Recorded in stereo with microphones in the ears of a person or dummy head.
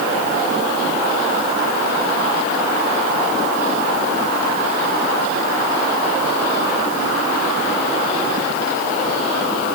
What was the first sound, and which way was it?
Only background noise.